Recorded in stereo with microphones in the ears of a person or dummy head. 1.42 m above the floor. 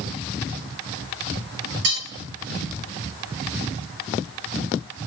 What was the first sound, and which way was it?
Cutlery clinking, 65° right (ahead or behind).